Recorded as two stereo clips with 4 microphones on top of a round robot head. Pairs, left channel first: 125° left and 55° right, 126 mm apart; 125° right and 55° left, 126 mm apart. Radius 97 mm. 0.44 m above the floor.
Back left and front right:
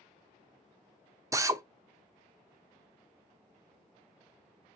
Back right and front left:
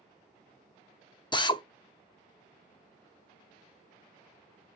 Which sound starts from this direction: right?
A drill, at 1.3 s.